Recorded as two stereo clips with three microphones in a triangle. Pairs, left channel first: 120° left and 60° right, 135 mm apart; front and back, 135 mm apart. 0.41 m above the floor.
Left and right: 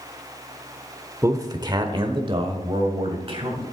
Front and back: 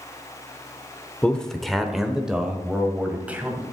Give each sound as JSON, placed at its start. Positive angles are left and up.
{"t": 1.2, "sound": "a man speaking", "azimuth_deg": -70, "distance_m": 0.8}